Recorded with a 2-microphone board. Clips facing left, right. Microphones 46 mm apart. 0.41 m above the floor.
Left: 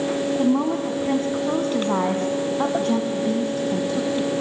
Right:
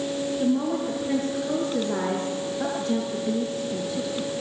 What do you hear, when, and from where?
0.4 s a woman speaking: 60° left (ahead or behind), 3 m